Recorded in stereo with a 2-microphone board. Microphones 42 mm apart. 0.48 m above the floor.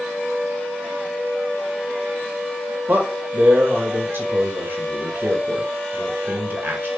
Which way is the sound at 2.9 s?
60° right (ahead or behind).